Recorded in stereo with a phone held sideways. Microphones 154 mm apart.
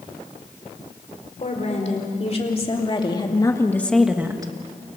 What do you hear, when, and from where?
1.4 s a woman speaking: 50° left (ahead or behind), 4.5 m; by 5.0 s 50° right (ahead or behind), 1.5 m